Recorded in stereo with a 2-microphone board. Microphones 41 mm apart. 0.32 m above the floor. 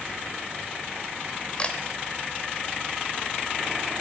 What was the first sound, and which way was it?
A camera shutter, 25° left (ahead or behind).